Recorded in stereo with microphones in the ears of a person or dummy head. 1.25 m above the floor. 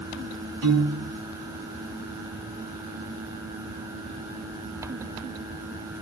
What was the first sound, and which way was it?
A piano, 70° right (ahead or behind).